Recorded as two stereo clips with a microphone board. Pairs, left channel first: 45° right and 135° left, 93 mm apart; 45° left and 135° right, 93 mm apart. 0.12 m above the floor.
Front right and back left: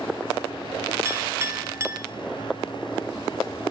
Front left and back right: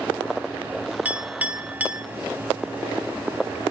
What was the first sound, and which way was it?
A clink, 165° left.